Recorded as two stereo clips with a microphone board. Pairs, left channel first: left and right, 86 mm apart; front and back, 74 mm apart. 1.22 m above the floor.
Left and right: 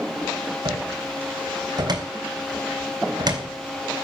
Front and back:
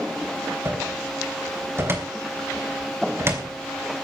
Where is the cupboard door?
125° right, 3.5 m.